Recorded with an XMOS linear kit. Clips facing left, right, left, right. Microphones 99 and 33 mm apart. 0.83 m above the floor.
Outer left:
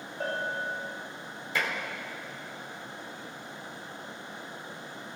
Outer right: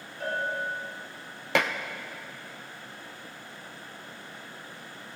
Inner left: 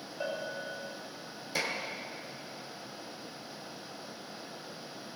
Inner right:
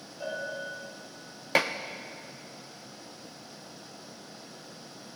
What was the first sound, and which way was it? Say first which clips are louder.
A bell: outer right 2 dB, inner right 2 dB; 45° left (ahead or behind).